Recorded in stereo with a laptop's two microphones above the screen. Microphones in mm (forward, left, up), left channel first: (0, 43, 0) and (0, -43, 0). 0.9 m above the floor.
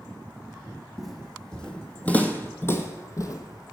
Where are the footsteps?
Centre (ahead or behind), 2 m; by 3.7 s 50° left (ahead or behind), 1.7 m.